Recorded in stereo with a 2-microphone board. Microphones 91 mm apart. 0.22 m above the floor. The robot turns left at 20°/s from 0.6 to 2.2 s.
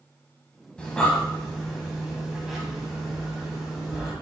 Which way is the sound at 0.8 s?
10° left (ahead or behind).